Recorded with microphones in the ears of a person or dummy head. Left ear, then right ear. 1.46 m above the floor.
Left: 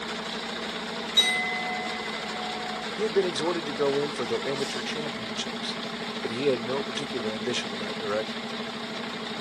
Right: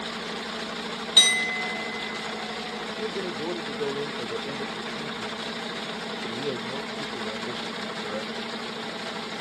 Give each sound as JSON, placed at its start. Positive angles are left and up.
{"t": 1.2, "sound": "a clink", "side_deg": -50, "distance_m": 1.5}
{"t": 3.0, "sound": "a man speaking", "side_deg": 75, "distance_m": 0.5}